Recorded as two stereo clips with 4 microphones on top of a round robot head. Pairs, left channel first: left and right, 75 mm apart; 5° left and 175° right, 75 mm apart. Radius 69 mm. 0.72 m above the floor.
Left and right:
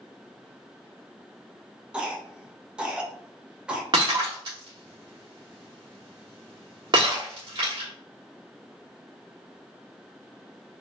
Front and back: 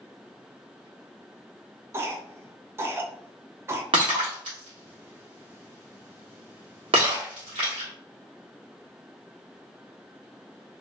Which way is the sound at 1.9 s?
160° right.